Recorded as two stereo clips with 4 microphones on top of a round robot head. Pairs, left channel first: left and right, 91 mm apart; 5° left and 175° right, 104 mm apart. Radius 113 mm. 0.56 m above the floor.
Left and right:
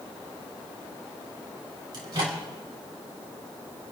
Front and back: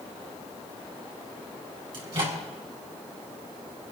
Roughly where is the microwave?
Behind right.